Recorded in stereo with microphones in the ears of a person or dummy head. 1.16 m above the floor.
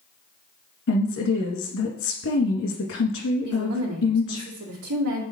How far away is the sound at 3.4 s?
About 2 m.